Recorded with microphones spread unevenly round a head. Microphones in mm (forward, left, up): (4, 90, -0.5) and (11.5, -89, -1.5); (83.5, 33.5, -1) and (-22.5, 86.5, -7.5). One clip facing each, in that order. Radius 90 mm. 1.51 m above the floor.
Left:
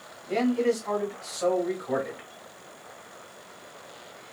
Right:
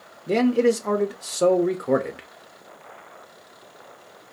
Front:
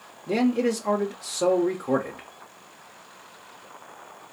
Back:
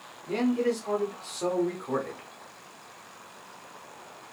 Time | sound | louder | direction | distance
0.3 | a man speaking | right 5 dB, front 3 dB | 80° right | 0.6 m